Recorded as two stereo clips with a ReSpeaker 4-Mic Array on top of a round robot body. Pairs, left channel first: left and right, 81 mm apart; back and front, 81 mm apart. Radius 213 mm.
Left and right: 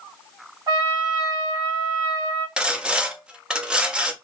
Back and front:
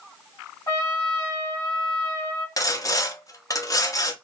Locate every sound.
0.7 s a trumpet: 125° right, 1.3 m
2.6 s sawing: 165° right, 0.8 m